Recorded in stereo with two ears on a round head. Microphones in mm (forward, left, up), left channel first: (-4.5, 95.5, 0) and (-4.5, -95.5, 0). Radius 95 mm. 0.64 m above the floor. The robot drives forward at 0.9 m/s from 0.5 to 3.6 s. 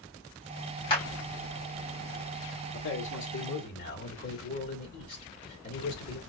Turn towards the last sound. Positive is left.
turn(degrees=50)  # may be behind; listen again after turning